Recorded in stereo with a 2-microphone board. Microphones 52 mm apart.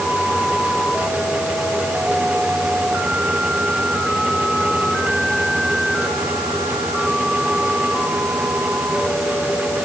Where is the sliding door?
I don't hear a sliding door.